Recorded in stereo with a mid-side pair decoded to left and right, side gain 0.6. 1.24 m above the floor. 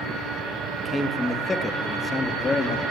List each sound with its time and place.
0.8 s a man speaking: 5° right, 1.4 m; by 2.8 s 25° left, 2 m